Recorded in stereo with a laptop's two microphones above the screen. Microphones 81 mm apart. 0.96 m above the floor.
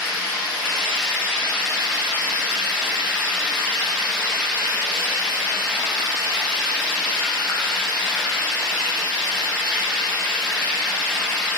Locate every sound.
0.0 s running water: 10° right (ahead or behind), 3 m